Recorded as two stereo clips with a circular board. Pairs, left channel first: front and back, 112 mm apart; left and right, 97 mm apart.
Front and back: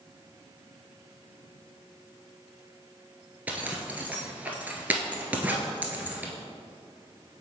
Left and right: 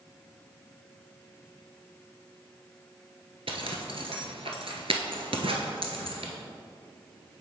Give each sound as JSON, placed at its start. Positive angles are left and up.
{"t": 3.5, "sound": "a zipper", "azimuth_deg": -105, "distance_m": 0.8}